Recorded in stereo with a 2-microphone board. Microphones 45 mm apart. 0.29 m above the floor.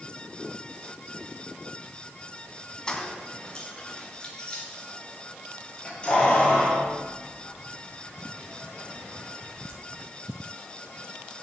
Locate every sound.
2.9 s keys jangling: 15° left (ahead or behind), 1.3 m; by 9.8 s 25° left (ahead or behind), 7.5 m